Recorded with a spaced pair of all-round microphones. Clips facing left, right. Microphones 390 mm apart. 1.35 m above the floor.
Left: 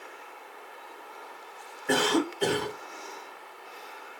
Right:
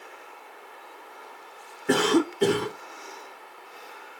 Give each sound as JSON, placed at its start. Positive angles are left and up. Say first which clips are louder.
{"t": 1.9, "sound": "a cough", "louder": "right 4 dB", "side_deg": -40, "distance_m": 1.4}